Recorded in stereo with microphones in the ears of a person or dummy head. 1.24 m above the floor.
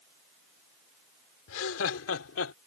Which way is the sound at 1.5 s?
80° left.